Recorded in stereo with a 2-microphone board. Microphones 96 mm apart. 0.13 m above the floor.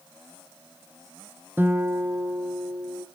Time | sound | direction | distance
1.6 | a guitar | 20° right (ahead or behind) | 0.5 m